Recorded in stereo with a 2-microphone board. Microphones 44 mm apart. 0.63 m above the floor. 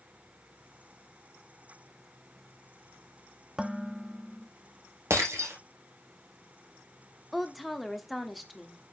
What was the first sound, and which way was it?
Dishes clattering, 15° right (ahead or behind).